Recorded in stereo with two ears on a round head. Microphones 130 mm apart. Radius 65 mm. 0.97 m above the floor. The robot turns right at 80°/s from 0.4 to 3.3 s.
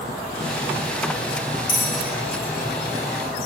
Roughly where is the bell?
Left.